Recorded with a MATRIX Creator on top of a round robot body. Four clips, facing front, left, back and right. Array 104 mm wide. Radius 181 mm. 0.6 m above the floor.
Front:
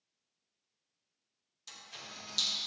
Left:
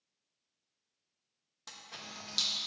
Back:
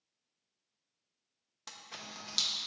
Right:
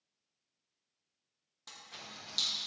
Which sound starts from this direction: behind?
A camera shutter, at 1.7 s.